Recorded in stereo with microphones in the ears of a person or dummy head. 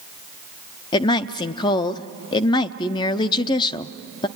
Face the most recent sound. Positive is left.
turn(degrees=25)  # may be behind; listen again after turning